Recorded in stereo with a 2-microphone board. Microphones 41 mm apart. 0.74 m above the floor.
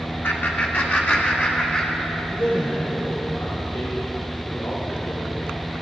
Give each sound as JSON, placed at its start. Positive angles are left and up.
{"t": 0.2, "sound": "laughter", "side_deg": 55, "distance_m": 1.7}
{"t": 2.3, "sound": "a man speaking", "side_deg": 75, "distance_m": 2.0}